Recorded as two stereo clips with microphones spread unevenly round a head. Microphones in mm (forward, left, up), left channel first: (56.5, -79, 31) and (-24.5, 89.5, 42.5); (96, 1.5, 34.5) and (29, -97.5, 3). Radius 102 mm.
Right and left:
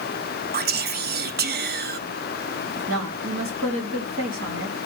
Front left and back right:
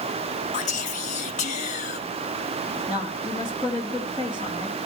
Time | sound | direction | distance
0.5 | whispering | 90° left | 0.7 m
2.8 | a woman speaking | 135° left | 2.5 m